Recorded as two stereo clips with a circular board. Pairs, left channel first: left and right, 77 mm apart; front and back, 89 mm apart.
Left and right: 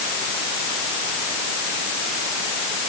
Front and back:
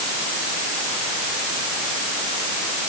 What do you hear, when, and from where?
Only background noise.